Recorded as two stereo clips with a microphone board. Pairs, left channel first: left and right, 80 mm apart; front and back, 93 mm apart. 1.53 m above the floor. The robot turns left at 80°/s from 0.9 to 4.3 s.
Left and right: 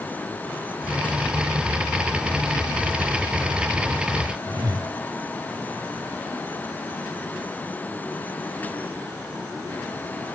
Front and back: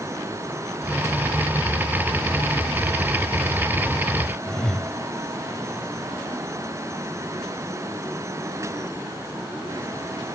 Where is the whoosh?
80° right, 2.5 m.